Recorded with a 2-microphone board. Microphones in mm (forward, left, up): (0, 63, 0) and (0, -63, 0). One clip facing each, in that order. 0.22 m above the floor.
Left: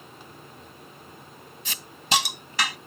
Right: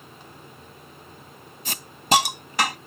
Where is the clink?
No clink in this recording.